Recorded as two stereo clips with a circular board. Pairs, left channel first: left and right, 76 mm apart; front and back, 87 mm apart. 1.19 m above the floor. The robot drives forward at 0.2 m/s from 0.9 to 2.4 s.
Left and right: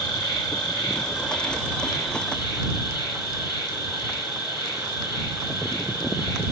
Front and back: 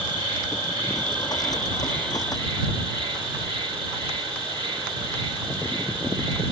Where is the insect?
175° right, 1.8 m.